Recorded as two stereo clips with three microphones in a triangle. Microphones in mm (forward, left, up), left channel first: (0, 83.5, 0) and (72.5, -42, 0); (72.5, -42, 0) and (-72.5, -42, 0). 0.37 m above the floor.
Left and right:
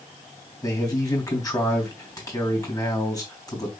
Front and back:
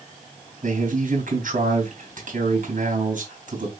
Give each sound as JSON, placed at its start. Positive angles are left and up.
{"t": 0.6, "sound": "a man speaking", "azimuth_deg": 180, "distance_m": 3.0}